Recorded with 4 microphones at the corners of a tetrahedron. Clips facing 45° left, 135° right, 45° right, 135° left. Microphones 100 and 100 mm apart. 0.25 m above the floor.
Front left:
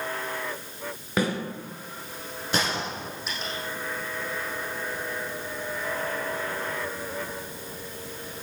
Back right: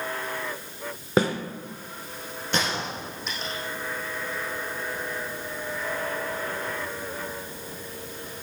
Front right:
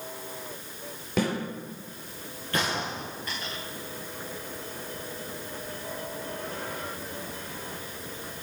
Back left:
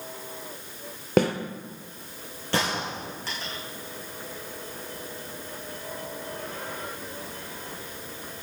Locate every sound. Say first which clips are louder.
1.2 s a snare drum: back right 4 dB, back left 6 dB; 165° left, 2.5 m
2.5 s a gunshot: even, back left 2 dB; 130° left, 5.5 m